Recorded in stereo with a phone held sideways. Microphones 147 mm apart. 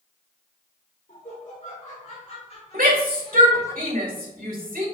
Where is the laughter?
65° left (ahead or behind), 3 m; by 3.7 s 15° left (ahead or behind), 1.2 m.